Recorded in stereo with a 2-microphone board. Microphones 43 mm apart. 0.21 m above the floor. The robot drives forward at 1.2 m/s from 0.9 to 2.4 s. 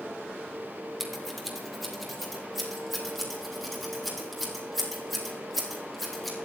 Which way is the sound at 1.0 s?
5° right (ahead or behind).